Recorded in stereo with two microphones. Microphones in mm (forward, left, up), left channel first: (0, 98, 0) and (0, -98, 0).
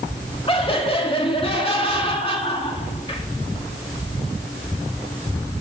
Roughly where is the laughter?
Left.